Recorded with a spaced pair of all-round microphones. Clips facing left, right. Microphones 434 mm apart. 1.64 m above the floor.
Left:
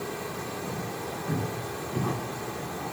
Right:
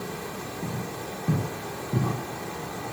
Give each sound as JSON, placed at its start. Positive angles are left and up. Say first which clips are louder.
{"t": 0.6, "sound": "footsteps", "louder": "even", "side_deg": -45, "distance_m": 8.5}